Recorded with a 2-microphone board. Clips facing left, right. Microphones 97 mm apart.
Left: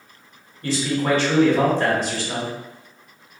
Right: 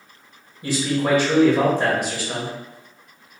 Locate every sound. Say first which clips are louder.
0.6 s a man speaking: even; 15° right (ahead or behind), 1.2 m